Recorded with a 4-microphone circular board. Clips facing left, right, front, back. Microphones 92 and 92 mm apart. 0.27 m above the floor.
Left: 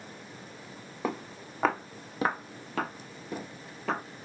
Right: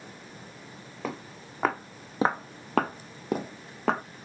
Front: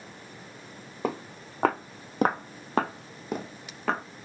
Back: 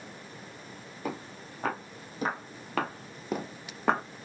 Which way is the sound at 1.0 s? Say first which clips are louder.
Left 3 dB, front 5 dB; 10° left.